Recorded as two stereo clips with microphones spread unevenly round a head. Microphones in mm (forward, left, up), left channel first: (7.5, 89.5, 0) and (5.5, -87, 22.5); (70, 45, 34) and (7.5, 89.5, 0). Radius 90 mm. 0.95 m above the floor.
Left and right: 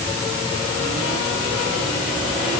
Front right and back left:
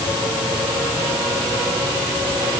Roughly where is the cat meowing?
I don't hear a cat meowing.